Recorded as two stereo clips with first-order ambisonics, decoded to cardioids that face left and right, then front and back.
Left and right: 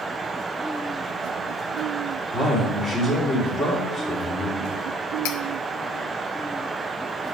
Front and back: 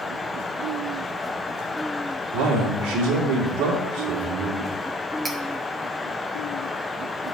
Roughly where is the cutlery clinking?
Left.